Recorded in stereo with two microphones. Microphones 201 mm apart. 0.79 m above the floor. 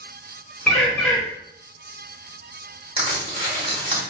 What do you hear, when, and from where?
0.7 s a bird: 5° left (ahead or behind), 1.2 m
3.0 s crushing: 25° right (ahead or behind), 1.6 m